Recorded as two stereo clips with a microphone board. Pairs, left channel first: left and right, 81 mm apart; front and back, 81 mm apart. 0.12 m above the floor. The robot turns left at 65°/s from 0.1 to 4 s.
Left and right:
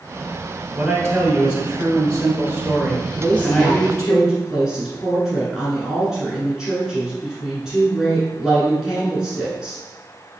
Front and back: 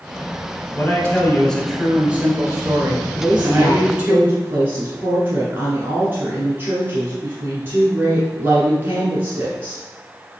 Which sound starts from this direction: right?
A woman speaking, at 3.1 s.